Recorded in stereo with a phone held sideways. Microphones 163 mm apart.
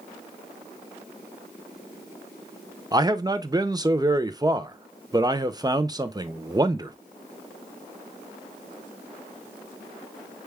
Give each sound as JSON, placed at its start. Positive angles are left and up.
{"t": 2.9, "sound": "a man speaking", "side_deg": -25, "distance_m": 0.6}